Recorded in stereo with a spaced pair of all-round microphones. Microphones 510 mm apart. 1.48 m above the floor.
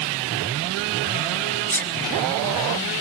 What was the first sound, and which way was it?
A sneeze, 15° right (ahead or behind).